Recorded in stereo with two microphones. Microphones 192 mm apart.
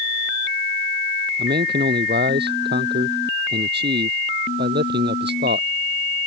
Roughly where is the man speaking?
Right.